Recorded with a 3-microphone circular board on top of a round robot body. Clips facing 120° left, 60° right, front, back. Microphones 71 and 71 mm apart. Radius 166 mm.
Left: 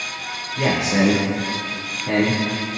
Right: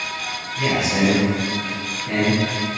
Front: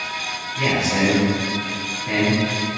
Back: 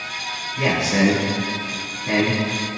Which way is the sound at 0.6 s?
115° left.